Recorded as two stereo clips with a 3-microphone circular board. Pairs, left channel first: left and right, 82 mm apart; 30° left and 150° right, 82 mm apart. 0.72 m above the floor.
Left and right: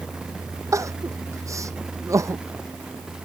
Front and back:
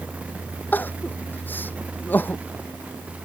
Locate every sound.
0.7 s crying: 40° right